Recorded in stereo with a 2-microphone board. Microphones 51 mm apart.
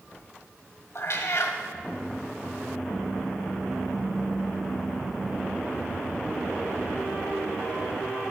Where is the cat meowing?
60° left (ahead or behind), 1.1 m.